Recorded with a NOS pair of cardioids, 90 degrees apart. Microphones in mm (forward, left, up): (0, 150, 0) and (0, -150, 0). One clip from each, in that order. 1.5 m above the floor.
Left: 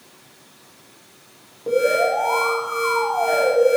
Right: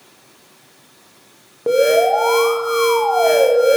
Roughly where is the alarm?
Ahead right.